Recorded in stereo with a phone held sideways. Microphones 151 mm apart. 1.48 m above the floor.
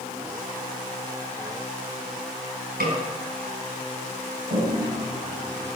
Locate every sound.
2.8 s a snare drum: 80° right, 5.5 m
4.5 s a toilet flushing: 60° right (ahead or behind), 7 m